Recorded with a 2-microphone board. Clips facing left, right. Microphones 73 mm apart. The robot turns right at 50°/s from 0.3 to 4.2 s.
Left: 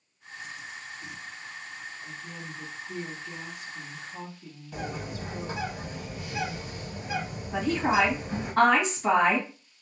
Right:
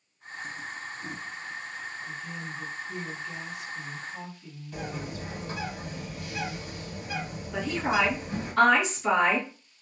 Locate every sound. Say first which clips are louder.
2.0 s a woman speaking: right 3 dB; 10° left, 1.2 m; by 5.7 s 115° left, 1.2 m
4.7 s a bird: left 1 dB; 25° left (ahead or behind), 1.1 m
7.5 s a woman speaking: left 2 dB; 35° left (ahead or behind), 1.6 m